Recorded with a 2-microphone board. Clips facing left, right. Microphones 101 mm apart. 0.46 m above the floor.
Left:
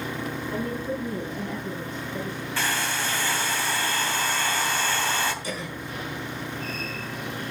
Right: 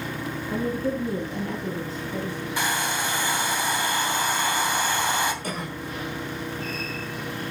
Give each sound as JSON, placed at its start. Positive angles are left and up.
{"t": 0.5, "sound": "a woman speaking", "side_deg": -80, "distance_m": 6.0}
{"t": 2.6, "sound": "a hair dryer", "side_deg": -15, "distance_m": 2.5}
{"t": 5.4, "sound": "a cough", "side_deg": -50, "distance_m": 5.5}